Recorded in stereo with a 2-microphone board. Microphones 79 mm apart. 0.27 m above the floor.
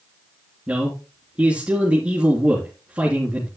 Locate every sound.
0.7 s a man speaking: 15° right (ahead or behind), 3 m